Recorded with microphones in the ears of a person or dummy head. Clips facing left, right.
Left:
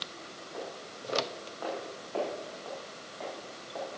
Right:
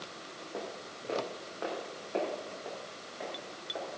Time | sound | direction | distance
0.5 | footsteps | 40° right (ahead or behind) | 4 m